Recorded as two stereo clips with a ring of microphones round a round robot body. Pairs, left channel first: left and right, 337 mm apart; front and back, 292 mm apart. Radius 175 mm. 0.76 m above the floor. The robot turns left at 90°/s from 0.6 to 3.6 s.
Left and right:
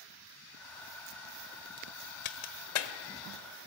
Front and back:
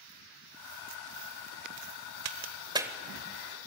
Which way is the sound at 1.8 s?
165° right.